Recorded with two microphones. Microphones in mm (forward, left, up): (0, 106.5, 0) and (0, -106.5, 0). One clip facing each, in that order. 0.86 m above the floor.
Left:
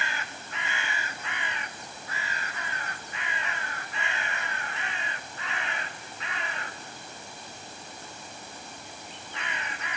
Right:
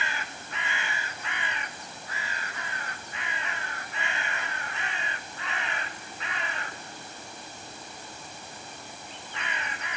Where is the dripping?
No dripping in this recording.